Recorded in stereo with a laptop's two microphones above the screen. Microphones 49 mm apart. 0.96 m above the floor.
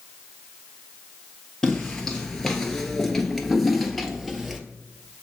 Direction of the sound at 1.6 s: 10° left (ahead or behind).